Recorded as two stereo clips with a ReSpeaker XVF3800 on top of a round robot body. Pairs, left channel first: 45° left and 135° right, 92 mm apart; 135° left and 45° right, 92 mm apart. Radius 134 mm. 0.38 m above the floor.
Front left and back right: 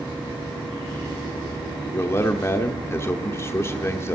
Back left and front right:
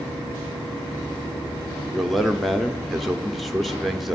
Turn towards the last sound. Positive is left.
turn(degrees=45)